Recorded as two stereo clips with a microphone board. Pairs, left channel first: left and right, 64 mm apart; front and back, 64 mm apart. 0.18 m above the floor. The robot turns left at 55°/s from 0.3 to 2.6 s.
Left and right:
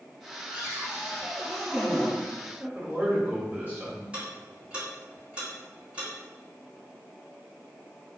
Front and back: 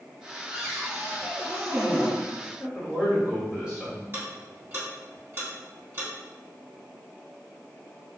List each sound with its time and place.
0.5 s a cupboard door: 105° right, 1.2 m; by 2.2 s 165° left, 1.2 m
2.6 s a man speaking: 115° right, 1.5 m
4.1 s ticking: 155° right, 2.0 m